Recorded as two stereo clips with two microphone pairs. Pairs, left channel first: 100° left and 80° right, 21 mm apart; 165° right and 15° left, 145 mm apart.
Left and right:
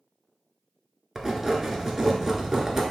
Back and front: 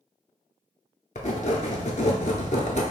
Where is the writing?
140° right, 0.5 m.